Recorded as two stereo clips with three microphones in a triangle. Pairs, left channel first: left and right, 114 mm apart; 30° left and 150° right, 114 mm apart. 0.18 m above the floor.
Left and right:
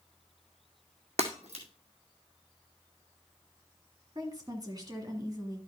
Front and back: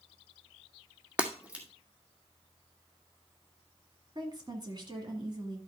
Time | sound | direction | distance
1.2 | breaking glass | 70° right | 2.0 m
4.2 | a woman speaking | 125° right | 2 m